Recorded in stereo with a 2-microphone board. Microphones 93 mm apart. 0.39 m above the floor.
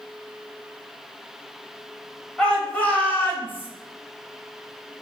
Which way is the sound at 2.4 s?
10° left (ahead or behind).